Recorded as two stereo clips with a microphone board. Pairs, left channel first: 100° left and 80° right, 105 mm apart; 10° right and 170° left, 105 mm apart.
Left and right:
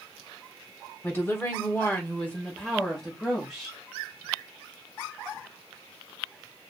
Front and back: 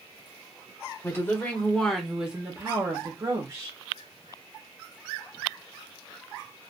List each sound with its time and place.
1.0 s a woman speaking: 45° left, 1.3 m; by 3.8 s 165° right, 1.4 m